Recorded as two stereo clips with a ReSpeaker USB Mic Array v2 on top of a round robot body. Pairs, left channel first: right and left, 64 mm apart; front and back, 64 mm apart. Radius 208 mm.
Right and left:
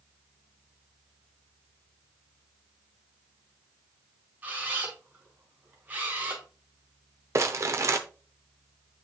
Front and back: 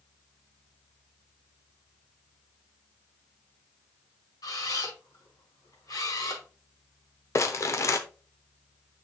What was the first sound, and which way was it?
A camera shutter, 25° left.